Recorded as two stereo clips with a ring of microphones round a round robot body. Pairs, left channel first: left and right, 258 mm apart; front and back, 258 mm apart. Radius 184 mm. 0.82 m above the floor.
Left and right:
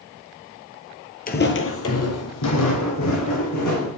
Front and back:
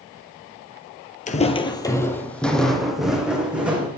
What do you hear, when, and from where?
1.3 s footsteps: 50° left, 1.0 m; by 3.9 s 95° left, 3.5 m